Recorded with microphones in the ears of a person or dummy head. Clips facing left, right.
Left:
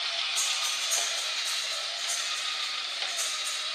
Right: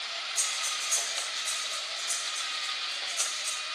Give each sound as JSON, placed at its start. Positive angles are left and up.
{"t": 0.3, "sound": "breathing", "side_deg": 0, "distance_m": 3.5}